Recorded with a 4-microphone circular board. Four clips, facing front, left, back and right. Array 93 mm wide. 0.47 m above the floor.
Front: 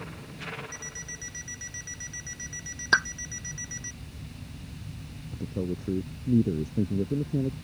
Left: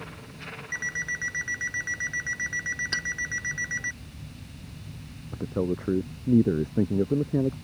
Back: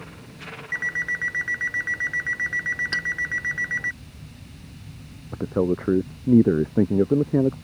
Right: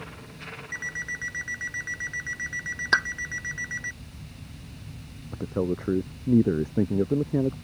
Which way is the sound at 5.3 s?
175° right.